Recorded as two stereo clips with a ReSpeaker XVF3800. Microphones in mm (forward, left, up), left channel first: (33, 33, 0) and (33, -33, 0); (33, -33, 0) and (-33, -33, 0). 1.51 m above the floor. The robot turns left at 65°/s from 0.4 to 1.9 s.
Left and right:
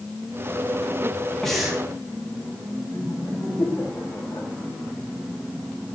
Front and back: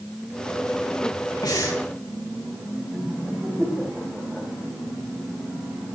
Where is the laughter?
90° left, 6 m.